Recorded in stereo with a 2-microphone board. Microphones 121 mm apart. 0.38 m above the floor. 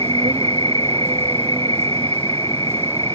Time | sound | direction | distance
0.0 | an insect | 50° right (ahead or behind) | ?